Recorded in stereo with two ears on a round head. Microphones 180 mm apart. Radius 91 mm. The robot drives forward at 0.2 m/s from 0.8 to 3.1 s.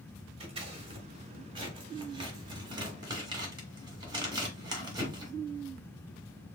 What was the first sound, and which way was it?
Scissors, 25° right (ahead or behind).